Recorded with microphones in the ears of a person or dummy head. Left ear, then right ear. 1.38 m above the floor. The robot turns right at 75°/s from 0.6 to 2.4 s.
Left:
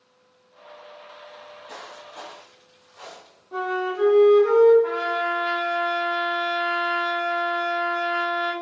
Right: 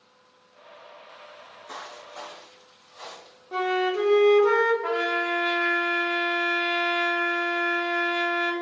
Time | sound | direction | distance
1.3 | footsteps | 15° left (ahead or behind) | 1.9 m
3.5 | a flute | 70° right (ahead or behind) | 0.8 m
4.8 | a trumpet | 50° right (ahead or behind) | 0.6 m